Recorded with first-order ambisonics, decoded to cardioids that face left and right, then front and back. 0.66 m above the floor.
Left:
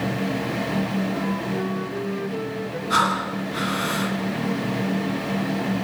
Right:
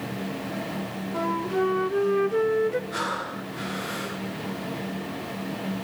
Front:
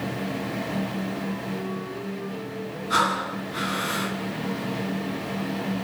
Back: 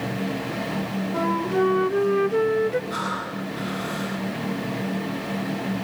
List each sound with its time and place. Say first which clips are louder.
1.1 s a flute: right 1 dB, back 9 dB; 155° right, 0.8 m
2.9 s breathing: left 8 dB, front 5 dB; 60° left, 7.5 m